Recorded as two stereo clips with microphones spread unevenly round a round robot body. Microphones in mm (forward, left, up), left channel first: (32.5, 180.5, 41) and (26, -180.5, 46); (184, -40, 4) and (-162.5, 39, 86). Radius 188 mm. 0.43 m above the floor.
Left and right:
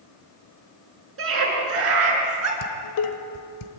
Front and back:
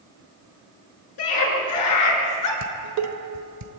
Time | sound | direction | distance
1.2 | a scream | 35° right | 7 m
2.6 | dishes clattering | 120° left | 1.5 m